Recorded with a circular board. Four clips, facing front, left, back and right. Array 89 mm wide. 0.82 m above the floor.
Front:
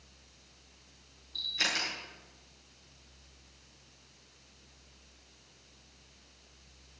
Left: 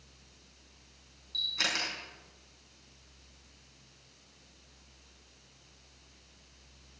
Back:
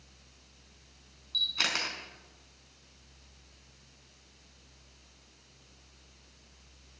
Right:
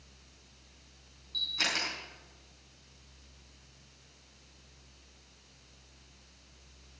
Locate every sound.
1.3 s a camera shutter: straight behind, 4 m